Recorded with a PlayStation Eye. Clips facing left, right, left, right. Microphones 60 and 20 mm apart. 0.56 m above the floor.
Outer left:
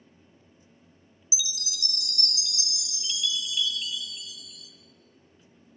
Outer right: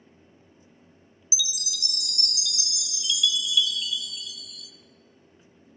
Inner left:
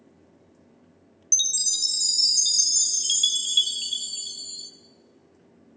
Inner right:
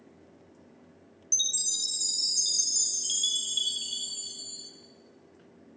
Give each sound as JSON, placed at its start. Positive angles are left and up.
{"t": 1.3, "sound": "a chime", "side_deg": 35, "distance_m": 0.7}